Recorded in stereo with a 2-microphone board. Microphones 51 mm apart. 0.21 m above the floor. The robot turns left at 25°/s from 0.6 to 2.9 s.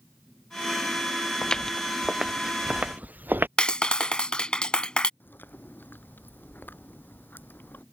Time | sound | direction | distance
1.4 | footsteps | 20° left (ahead or behind) | ?
3.6 | a clap | 15° left (ahead or behind) | ?
5.2 | chewing | 40° left (ahead or behind) | ?